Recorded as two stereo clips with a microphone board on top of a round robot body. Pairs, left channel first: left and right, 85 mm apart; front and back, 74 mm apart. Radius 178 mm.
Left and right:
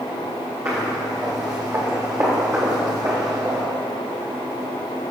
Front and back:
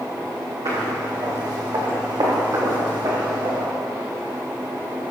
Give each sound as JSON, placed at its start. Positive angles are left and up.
{"t": 0.7, "sound": "footsteps", "azimuth_deg": -145, "distance_m": 4.5}